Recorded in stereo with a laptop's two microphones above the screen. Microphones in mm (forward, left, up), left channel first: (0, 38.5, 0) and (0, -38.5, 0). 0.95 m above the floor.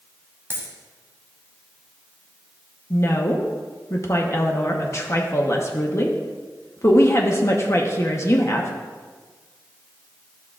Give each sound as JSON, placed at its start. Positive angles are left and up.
{"t": 0.5, "sound": "a dropped coin", "side_deg": -30, "distance_m": 1.3}
{"t": 2.9, "sound": "a woman speaking", "side_deg": 40, "distance_m": 0.9}